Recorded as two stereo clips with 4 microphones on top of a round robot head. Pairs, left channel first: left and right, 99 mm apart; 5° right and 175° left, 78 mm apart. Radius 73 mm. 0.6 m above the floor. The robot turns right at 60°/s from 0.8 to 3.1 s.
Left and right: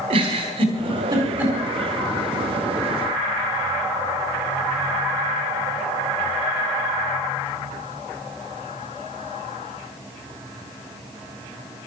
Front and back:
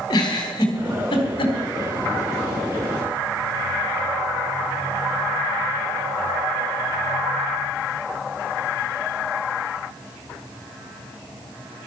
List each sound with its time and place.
0.1 s a giggle: 50° right, 3.5 m; by 1.6 s 5° right, 3.5 m